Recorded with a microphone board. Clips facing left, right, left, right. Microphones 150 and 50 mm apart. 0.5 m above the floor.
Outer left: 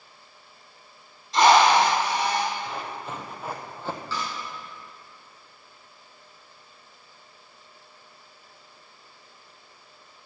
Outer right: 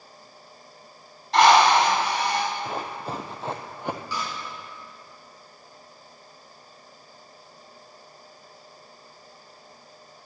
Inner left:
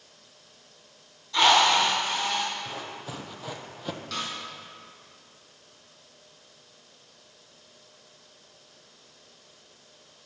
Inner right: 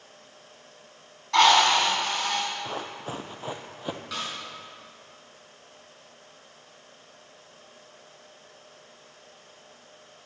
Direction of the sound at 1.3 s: 75° right (ahead or behind).